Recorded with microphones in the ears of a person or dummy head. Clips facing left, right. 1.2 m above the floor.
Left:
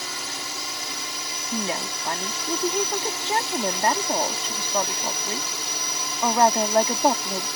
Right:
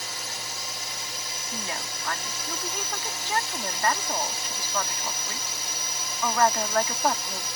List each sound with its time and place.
0.0 s a drone: 60° left (ahead or behind)
1.5 s a woman speaking: 20° left (ahead or behind)